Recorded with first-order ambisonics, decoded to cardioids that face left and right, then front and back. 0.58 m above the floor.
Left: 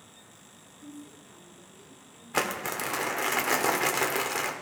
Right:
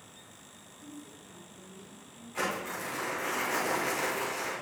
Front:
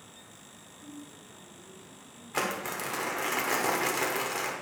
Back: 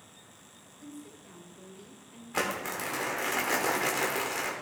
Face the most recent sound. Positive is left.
turn(degrees=90)